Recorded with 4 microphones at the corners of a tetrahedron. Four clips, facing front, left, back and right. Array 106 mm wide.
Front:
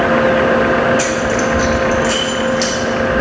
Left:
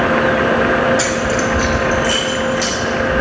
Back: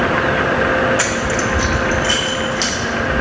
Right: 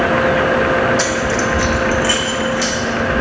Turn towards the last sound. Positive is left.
turn(degrees=-115)